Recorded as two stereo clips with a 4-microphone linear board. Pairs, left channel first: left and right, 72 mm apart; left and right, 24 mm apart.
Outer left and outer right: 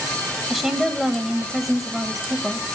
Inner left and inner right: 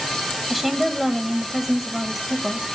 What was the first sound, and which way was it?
A woman speaking, 5° right (ahead or behind).